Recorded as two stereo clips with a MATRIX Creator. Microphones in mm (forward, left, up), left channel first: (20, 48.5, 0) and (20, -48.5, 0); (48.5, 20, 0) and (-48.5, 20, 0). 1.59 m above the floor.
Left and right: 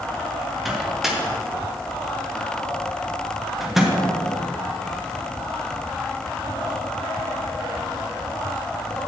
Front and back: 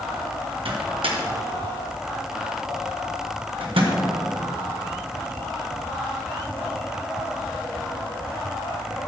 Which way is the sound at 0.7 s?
175° right.